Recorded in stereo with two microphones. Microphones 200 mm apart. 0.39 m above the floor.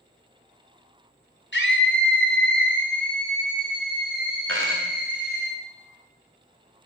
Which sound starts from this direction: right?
A dropped coin, at 4.5 s.